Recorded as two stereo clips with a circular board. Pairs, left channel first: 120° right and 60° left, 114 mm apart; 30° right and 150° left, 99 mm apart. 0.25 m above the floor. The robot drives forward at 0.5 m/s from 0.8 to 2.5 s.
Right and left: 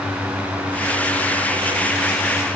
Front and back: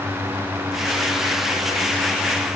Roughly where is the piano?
No piano in this recording.